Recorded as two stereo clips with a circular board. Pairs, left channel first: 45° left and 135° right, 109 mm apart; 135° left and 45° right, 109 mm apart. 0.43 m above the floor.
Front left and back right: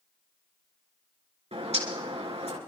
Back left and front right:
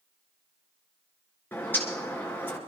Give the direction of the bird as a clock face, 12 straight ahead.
5 o'clock.